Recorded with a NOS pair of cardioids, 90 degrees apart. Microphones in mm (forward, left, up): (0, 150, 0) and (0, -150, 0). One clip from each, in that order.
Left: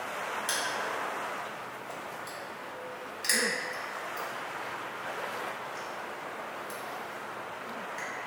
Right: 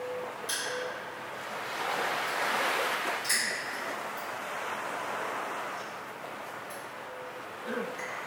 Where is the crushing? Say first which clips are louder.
Left 1 dB; 55° left, 1.7 m.